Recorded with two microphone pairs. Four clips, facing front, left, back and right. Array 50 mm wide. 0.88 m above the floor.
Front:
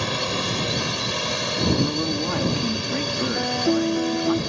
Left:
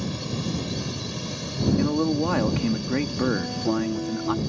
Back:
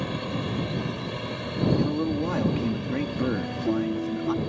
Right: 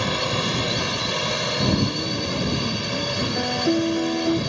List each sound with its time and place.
0.0 s a drone: 60° right
1.8 s a man speaking: 75° left
3.4 s a piano: 35° right